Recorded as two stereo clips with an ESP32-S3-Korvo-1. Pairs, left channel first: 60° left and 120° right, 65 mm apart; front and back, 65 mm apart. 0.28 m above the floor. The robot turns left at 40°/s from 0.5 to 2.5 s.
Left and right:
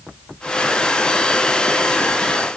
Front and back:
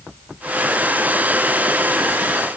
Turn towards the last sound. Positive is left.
No sound to turn to.